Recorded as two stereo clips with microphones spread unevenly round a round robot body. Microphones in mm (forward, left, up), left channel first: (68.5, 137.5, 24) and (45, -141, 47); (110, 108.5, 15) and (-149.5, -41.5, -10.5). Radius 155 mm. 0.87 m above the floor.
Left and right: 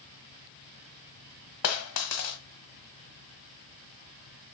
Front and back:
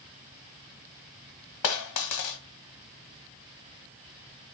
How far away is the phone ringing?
No phone ringing in this recording.